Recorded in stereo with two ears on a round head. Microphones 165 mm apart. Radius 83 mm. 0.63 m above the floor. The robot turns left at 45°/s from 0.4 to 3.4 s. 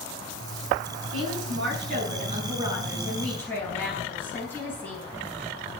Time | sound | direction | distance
1.1 | a woman speaking | 90° right | 6 m